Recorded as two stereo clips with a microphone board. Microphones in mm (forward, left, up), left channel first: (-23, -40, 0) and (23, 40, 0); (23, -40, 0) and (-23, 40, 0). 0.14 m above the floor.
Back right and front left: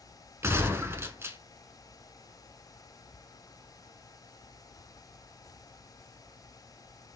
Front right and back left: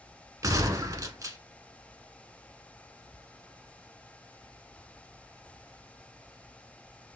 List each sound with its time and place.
0.4 s a gunshot: 105° left, 0.8 m